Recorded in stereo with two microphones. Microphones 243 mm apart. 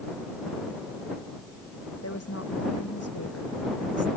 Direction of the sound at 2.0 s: 80° left.